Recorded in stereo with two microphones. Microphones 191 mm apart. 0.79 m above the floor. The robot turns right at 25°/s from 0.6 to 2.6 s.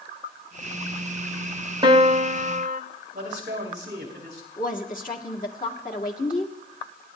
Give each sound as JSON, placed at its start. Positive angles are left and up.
{"t": 1.8, "sound": "a piano", "side_deg": -25, "distance_m": 1.0}
{"t": 3.1, "sound": "a man speaking", "side_deg": -55, "distance_m": 3.0}
{"t": 4.6, "sound": "a woman speaking", "side_deg": 45, "distance_m": 1.6}